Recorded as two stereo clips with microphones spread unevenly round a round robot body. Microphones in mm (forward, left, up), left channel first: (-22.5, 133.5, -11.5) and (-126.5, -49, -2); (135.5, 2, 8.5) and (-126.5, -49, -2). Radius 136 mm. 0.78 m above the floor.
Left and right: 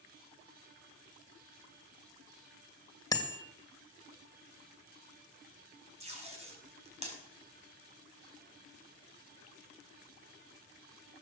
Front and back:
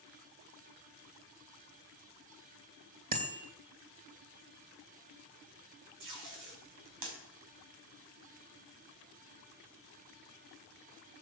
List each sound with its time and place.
3.1 s a bicycle bell: 135° left, 2.5 m
6.0 s tape being pulled: 175° right, 5 m